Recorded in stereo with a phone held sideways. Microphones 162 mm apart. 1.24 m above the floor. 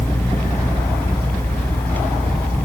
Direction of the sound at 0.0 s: 10° left (ahead or behind).